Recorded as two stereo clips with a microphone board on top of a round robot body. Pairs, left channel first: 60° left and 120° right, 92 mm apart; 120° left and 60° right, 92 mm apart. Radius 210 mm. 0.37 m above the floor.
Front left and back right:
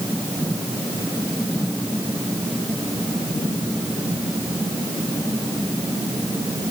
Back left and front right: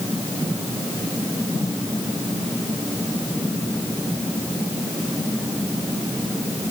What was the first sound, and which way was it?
Only background noise.